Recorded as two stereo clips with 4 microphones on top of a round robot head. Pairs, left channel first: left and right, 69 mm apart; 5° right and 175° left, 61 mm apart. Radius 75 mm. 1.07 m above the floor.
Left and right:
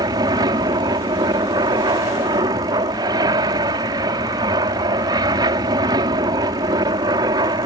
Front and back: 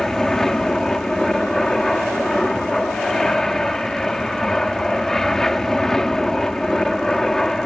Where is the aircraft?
85° right.